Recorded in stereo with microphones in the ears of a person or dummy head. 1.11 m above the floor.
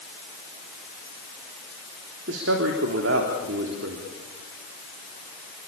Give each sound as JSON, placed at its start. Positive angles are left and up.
{"t": 2.3, "sound": "a man speaking", "side_deg": -70, "distance_m": 3.5}